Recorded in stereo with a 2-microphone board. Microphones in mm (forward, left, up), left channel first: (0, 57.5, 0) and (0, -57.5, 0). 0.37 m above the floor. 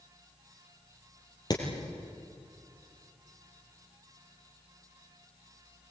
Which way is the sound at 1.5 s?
40° left (ahead or behind).